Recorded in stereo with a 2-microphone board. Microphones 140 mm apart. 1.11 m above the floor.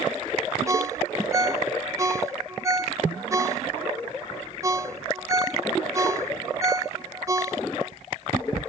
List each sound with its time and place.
0.7 s a ringtone: 25° right (ahead or behind), 0.8 m